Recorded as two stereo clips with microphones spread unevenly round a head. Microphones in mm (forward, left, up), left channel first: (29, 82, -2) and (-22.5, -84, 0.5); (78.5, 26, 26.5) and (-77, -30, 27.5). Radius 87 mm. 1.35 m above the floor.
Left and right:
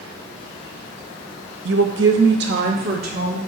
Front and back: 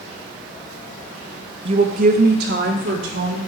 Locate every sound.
1.6 s a woman speaking: 105° right, 0.8 m; by 3.4 s 150° right, 2.5 m